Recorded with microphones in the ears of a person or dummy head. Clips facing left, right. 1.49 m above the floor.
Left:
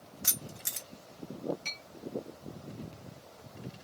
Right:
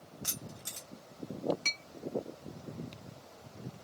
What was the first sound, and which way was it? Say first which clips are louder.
Keys jangling: left 2 dB; 25° left (ahead or behind).